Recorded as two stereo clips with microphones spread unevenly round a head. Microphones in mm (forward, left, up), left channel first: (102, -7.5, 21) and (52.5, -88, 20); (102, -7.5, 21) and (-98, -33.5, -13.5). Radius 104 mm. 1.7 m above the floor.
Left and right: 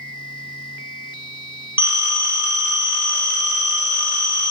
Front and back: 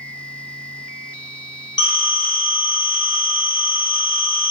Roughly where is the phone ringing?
Ahead right.